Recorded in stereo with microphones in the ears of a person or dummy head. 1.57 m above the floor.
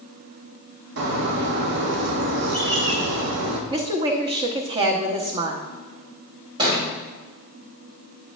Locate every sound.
1.0 s a bird: 65° right (ahead or behind), 1.2 m
3.7 s a woman speaking: 25° right (ahead or behind), 1.0 m
6.6 s a thud: 30° right (ahead or behind), 3.5 m